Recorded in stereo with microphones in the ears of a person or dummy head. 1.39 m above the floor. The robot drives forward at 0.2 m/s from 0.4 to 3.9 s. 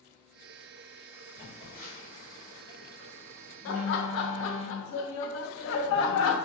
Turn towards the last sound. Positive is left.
turn(degrees=80)